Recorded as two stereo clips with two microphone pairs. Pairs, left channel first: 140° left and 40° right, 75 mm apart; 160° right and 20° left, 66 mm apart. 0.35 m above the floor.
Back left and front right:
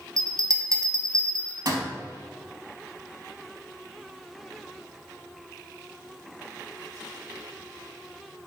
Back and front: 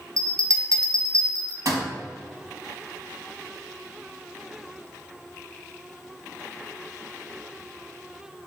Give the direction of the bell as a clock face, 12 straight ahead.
12 o'clock.